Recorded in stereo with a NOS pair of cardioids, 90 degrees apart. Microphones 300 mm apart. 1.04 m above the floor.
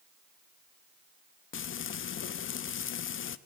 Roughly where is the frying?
Ahead left.